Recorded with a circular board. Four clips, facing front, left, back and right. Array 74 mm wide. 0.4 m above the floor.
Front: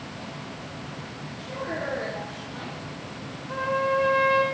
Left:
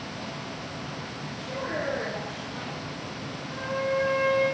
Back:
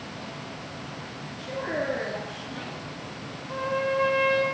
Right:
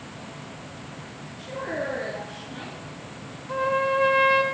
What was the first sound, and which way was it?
A woman speaking, 160° right.